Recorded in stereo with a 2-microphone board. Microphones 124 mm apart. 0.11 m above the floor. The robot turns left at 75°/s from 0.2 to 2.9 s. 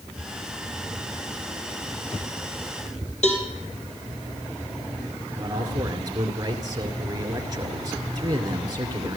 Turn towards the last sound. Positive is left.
turn(degrees=-30)  # may be behind; listen again after turning